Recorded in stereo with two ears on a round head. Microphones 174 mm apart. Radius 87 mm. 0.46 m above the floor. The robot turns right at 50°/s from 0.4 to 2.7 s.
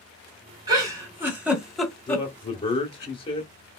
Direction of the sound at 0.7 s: 20° right (ahead or behind).